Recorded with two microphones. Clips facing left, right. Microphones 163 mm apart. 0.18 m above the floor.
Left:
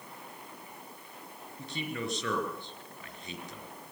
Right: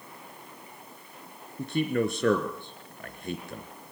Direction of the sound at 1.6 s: 60° right (ahead or behind).